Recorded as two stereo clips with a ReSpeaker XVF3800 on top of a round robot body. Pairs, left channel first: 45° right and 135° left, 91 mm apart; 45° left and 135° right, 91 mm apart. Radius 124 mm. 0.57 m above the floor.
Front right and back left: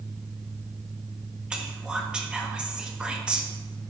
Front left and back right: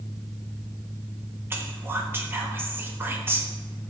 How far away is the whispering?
About 1.0 m.